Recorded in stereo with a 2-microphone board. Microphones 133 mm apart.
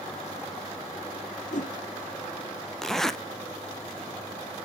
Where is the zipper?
5° left (ahead or behind), 0.6 m.